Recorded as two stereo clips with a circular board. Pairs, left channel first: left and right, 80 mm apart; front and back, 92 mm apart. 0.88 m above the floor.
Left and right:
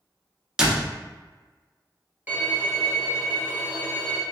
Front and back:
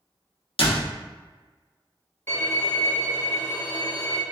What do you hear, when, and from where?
0.6 s a door slam: 5° right, 0.8 m
2.3 s a violin: 45° right, 1.0 m